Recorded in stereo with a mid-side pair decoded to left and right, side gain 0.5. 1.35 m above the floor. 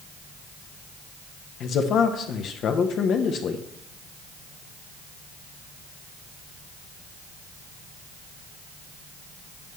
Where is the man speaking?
60° left, 1.0 m.